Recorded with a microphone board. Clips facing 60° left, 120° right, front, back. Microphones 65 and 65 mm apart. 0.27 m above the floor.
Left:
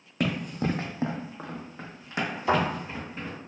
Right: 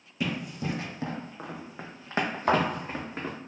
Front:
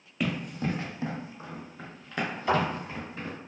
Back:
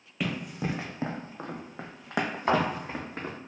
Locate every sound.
0.2 s running footsteps: 90° left, 0.7 m; by 3.4 s 155° right, 1.2 m
2.5 s a thud: 145° right, 1.1 m